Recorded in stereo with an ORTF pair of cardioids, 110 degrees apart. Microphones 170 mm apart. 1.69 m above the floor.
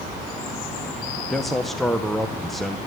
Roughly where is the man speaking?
Ahead.